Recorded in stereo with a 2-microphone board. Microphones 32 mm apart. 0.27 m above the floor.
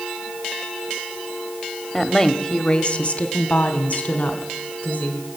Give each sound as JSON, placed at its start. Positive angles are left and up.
{"t": 1.9, "sound": "a woman speaking", "side_deg": 10, "distance_m": 0.9}